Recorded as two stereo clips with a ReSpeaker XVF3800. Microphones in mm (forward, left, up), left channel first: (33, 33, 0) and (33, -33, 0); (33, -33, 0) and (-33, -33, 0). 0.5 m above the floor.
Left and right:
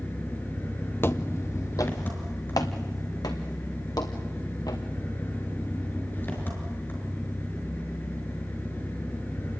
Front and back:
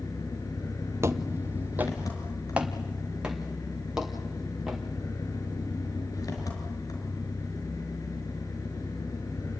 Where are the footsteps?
140° left, 1.0 m; by 4.8 s 100° left, 3.5 m.